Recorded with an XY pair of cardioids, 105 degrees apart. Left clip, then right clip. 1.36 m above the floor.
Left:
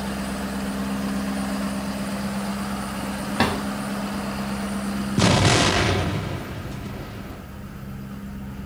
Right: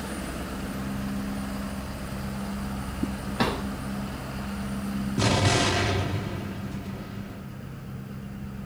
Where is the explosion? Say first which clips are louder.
Left 5 dB; 45° left, 0.9 m.